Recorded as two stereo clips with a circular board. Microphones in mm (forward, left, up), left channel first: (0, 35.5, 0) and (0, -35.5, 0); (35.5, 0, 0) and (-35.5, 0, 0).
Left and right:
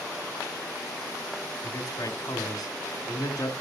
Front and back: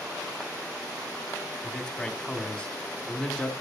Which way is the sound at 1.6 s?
70° left.